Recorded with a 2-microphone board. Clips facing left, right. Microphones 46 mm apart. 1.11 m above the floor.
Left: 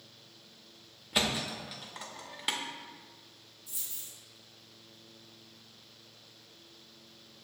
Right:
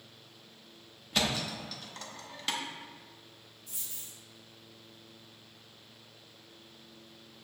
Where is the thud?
15° left (ahead or behind), 0.5 m.